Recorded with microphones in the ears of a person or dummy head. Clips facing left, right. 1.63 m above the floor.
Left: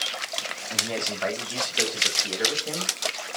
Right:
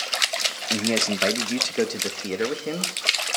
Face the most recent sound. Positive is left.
turn(degrees=-40)  # may be behind; listen again after turning